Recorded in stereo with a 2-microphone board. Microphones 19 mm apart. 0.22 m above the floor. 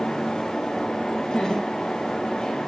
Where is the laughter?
50° left (ahead or behind), 5 m; by 2.6 s 40° left (ahead or behind), 5.5 m.